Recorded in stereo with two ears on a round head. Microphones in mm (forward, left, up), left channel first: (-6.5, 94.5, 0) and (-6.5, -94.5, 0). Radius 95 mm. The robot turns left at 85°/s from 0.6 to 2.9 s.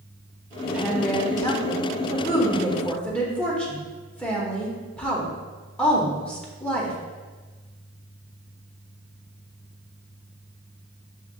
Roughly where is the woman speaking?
Centre.